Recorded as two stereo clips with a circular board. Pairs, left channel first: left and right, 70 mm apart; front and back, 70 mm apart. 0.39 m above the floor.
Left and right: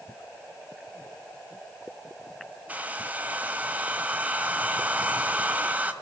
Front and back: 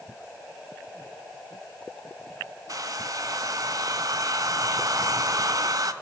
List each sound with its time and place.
2.7 s a hair dryer: 155° right, 1.8 m